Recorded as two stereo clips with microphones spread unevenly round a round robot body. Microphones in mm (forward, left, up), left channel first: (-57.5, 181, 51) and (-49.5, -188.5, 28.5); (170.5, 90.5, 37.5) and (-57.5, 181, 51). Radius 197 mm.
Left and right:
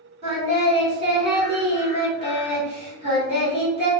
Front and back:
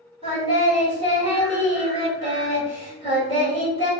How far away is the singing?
About 1.6 m.